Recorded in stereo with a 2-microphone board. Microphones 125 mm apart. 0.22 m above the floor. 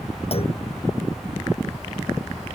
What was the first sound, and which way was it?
A clunk, 50° left (ahead or behind).